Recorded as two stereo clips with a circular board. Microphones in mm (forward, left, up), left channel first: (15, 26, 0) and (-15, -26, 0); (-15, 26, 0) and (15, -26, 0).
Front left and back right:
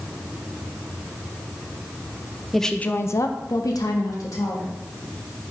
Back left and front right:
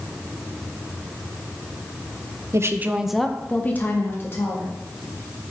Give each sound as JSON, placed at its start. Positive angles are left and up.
{"t": 2.5, "sound": "a woman speaking", "azimuth_deg": -30, "distance_m": 0.7}